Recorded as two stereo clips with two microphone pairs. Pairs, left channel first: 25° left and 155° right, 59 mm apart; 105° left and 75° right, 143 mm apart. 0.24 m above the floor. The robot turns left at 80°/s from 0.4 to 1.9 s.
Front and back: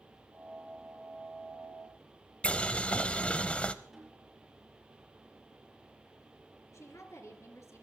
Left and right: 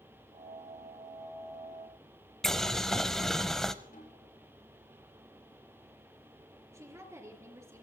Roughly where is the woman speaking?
Ahead.